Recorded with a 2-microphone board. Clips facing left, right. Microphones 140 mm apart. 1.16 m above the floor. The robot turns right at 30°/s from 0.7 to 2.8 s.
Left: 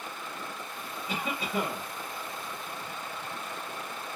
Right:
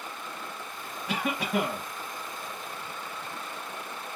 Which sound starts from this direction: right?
A cough, at 1.1 s.